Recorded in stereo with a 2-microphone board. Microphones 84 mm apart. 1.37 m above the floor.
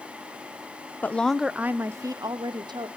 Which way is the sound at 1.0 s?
20° left (ahead or behind).